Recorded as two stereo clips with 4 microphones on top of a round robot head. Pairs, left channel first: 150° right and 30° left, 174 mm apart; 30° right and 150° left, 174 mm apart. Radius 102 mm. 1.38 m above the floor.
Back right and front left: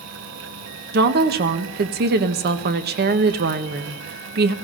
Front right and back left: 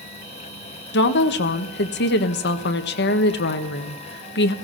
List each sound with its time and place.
0.9 s a woman speaking: 5° right, 1.4 m